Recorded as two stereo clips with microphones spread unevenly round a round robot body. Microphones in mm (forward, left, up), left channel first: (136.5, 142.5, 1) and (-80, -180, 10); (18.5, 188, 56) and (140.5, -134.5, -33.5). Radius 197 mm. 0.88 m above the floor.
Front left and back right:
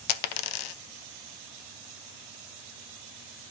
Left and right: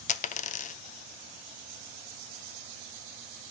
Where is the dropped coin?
55° left, 0.5 m.